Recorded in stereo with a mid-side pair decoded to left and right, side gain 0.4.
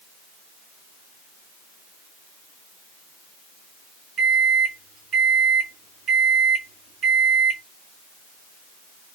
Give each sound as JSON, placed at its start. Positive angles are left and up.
{"t": 4.2, "sound": "a microwave", "azimuth_deg": -70, "distance_m": 1.6}